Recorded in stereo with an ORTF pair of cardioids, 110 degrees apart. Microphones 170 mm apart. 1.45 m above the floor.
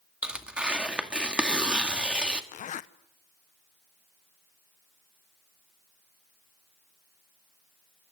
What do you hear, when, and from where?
0.2 s tearing paper: 5° right, 2 m
2.5 s a zipper: 50° left, 1.0 m